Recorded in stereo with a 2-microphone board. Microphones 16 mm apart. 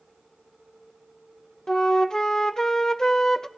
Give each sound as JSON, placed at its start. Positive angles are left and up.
{"t": 1.7, "sound": "a flute", "side_deg": 40, "distance_m": 0.5}